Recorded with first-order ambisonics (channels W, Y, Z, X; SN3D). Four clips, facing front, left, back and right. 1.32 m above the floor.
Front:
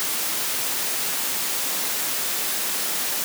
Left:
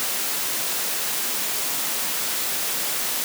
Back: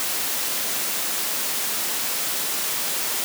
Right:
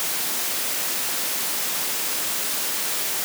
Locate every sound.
Only background noise.